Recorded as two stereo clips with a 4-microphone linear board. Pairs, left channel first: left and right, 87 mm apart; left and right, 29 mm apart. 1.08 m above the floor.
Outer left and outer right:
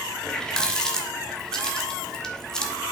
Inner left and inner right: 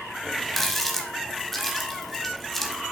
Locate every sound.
0.2 s a running tap: 10° left (ahead or behind), 1.3 m